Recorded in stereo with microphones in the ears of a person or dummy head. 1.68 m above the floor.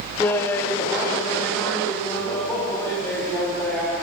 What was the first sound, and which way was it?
Laughter, 10° left (ahead or behind).